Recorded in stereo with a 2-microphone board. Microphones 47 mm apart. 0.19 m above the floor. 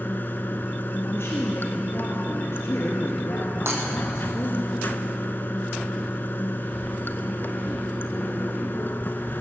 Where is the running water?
50° left (ahead or behind), 0.7 m.